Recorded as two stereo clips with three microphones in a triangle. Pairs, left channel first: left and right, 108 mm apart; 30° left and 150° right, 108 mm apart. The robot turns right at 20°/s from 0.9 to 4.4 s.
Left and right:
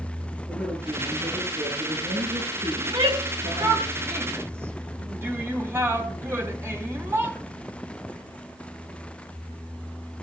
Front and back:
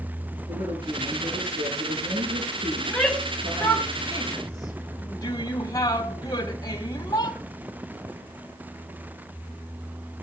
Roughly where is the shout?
Ahead right.